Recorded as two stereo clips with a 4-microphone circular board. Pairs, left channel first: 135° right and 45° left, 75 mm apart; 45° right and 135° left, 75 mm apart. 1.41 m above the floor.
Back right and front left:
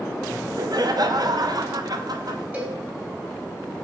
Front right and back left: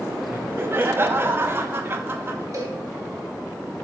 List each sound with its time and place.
0.3 s laughter: 75° left, 0.8 m
2.5 s a cowbell: 110° left, 1.8 m